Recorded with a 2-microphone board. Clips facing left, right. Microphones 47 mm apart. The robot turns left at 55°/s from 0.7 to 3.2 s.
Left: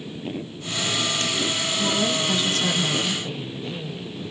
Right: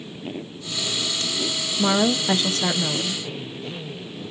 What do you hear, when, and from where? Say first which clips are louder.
1.8 s a woman speaking: right 5 dB; 90° right, 0.5 m; by 3.2 s 170° right, 0.5 m